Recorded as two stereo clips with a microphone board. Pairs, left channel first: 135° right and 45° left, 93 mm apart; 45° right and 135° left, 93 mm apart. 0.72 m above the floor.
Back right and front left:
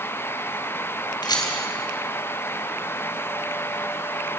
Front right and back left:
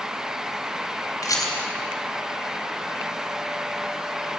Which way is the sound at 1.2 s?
95° right.